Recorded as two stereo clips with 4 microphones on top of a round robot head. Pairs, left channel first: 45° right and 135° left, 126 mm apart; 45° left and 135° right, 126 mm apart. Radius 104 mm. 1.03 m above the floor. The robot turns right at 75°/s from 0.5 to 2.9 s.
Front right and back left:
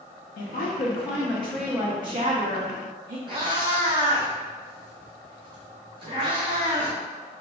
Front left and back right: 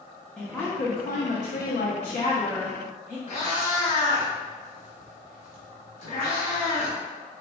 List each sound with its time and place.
0.4 s a woman speaking: 35° right, 0.5 m; by 3.2 s 145° left, 0.5 m
3.3 s a cat meowing: 80° left, 0.8 m